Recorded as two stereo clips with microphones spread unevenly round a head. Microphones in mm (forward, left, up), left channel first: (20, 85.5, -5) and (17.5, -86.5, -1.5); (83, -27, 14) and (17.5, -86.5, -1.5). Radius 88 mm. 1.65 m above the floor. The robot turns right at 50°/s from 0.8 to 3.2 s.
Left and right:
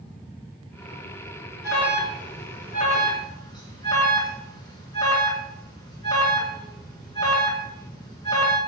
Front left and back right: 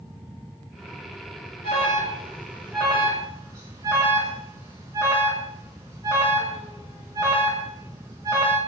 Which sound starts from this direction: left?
An alarm, at 1.6 s.